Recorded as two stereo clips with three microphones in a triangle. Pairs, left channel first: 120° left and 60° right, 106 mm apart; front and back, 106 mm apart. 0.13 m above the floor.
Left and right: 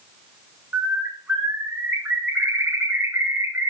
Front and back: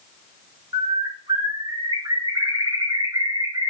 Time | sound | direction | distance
0.7 | a bird | 130° right | 6 m